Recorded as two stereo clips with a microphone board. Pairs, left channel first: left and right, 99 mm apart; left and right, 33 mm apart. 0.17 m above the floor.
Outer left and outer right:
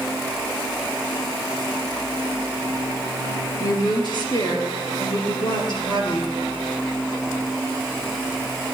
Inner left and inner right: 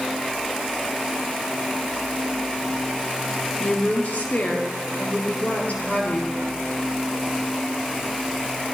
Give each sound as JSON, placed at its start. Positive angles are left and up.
{"t": 3.6, "sound": "a woman speaking", "side_deg": 50, "distance_m": 3.0}